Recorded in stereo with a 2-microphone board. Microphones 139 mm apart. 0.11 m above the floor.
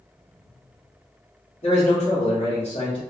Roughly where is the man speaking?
Left.